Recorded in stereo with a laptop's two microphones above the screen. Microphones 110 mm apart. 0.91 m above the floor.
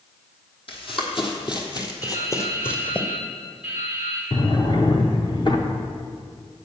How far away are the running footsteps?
About 2 m.